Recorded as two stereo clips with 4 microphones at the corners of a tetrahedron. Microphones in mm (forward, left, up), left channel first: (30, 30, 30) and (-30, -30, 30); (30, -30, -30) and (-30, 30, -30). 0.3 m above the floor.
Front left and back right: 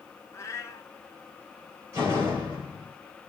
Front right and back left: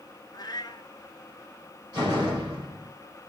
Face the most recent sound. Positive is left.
turn(degrees=170)